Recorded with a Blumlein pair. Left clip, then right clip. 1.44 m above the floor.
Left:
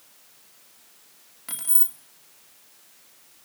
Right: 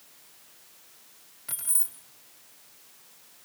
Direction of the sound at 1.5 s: 15° left.